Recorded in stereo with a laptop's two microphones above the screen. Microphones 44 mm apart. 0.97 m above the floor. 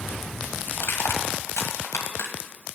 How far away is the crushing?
About 1.7 m.